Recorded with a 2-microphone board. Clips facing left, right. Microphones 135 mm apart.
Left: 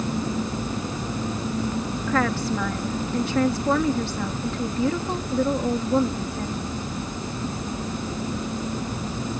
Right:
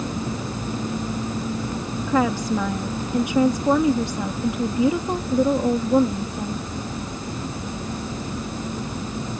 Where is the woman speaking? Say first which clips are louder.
Right 3 dB; 15° right (ahead or behind).